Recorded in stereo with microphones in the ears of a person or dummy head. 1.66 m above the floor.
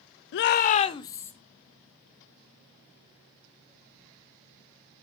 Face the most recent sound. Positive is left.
turn(degrees=15)  # may be behind; listen again after turning